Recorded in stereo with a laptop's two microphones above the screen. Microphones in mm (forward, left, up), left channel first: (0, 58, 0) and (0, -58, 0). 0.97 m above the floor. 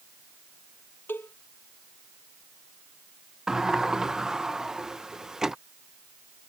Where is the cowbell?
20° left (ahead or behind).